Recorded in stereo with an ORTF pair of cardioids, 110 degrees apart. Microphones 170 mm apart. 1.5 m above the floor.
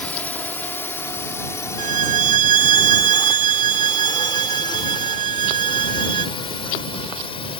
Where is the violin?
50° right.